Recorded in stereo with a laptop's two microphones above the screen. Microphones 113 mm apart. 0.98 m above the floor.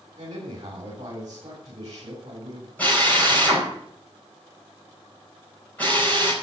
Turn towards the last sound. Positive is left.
turn(degrees=15)  # may be behind; listen again after turning